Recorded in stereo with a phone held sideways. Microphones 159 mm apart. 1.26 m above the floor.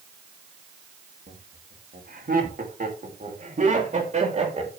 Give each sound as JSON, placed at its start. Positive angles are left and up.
{"t": 1.3, "sound": "laughter", "side_deg": -80, "distance_m": 3.0}